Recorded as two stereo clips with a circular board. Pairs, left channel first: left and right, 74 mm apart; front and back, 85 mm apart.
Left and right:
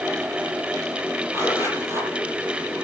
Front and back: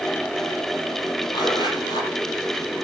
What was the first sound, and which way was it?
A zipper, 35° right.